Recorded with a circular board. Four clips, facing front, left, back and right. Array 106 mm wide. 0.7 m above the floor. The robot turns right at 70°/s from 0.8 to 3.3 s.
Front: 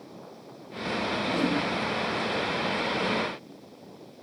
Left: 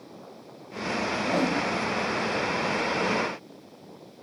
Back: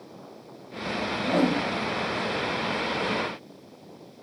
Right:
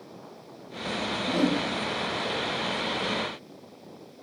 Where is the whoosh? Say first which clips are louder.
Right 1 dB, back 5 dB; 140° left, 1.4 m; by 1.7 s 175° left, 1.4 m.